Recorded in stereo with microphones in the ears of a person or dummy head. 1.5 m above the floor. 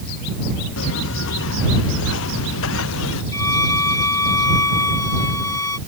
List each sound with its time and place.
0.8 s footsteps: 70° left (ahead or behind); by 3.2 s 75° left (ahead or behind)
3.3 s a violin: 15° left (ahead or behind)